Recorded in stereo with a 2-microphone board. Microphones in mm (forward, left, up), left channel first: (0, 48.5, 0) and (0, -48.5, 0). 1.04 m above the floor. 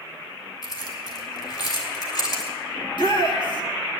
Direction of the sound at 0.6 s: 45° left (ahead or behind).